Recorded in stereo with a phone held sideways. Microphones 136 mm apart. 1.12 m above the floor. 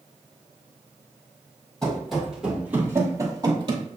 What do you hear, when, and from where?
1.8 s running footsteps: 5° left (ahead or behind), 1.9 m; by 3.9 s 40° right (ahead or behind), 1.5 m